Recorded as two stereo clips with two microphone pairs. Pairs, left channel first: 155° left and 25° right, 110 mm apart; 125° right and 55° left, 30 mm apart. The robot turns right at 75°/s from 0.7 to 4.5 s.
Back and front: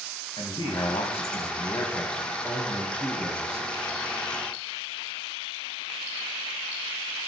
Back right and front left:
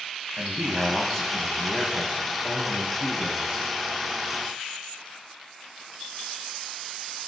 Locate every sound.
0.4 s a man speaking: 130° left, 2 m; by 3.7 s 10° right, 2 m